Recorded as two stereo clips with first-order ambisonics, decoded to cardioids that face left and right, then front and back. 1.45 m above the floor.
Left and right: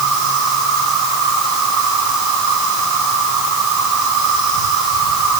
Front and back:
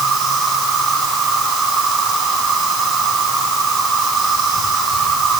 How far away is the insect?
About 6.5 m.